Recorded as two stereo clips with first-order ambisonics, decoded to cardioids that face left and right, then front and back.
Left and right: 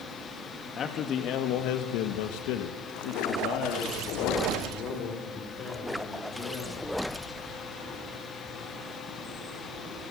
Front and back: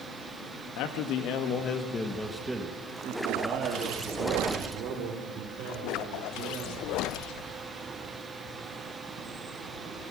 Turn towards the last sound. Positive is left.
turn(degrees=145)